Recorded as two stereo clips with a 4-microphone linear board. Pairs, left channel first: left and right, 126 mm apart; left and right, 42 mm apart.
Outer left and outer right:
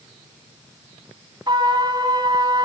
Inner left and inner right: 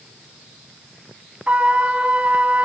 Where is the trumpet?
35° right (ahead or behind), 1.4 m.